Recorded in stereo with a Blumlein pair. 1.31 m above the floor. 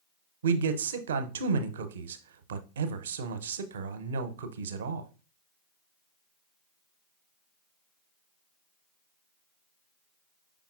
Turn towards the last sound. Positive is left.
turn(degrees=-60)